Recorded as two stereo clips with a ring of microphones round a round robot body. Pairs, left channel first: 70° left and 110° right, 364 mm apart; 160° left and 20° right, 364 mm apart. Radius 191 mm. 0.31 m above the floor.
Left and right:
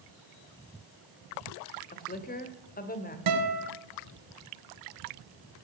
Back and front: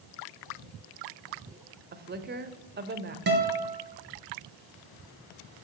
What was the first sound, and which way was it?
A woman speaking, 20° left.